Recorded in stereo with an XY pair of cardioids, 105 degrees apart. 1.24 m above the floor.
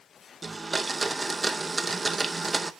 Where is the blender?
15° right, 0.7 m.